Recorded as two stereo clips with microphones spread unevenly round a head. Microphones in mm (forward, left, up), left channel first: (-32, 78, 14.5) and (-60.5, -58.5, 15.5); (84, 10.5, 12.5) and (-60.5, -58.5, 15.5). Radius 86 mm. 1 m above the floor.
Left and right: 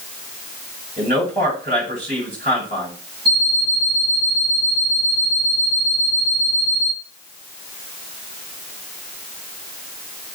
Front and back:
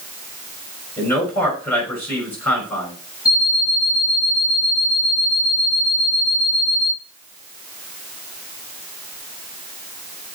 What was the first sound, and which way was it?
A man speaking, 50° right.